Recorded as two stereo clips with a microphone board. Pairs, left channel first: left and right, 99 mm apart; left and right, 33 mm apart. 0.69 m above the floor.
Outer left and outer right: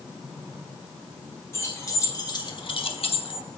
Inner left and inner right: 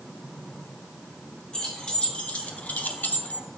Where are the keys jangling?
30° left (ahead or behind), 1.6 m; by 3.5 s 50° left (ahead or behind), 0.7 m.